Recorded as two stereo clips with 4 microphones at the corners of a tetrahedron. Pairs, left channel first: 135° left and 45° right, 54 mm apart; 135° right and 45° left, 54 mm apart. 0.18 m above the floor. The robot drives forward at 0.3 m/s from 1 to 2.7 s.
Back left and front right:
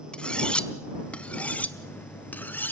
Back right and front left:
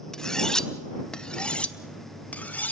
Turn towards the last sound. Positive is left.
turn(degrees=175)